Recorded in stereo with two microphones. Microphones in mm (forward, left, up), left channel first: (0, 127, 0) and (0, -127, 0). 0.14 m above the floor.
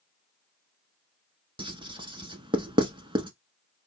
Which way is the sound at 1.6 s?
20° right (ahead or behind).